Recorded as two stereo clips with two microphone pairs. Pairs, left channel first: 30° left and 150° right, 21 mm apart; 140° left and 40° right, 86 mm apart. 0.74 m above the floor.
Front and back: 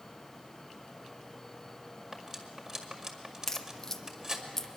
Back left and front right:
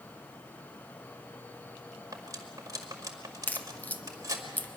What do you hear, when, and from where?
2.1 s cutlery clinking: 90° right, 1.9 m
3.5 s a crack: 85° left, 1.0 m